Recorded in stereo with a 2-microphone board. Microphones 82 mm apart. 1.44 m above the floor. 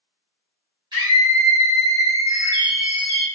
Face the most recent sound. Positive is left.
turn(degrees=30)  # may be behind; listen again after turning